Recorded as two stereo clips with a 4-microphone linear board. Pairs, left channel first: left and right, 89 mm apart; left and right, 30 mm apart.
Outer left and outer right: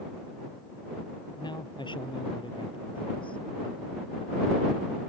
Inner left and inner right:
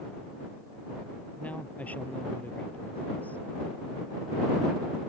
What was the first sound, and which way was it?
A man speaking, 55° left (ahead or behind).